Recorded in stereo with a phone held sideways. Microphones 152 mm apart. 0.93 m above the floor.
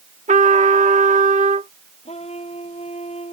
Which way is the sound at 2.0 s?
45° left (ahead or behind).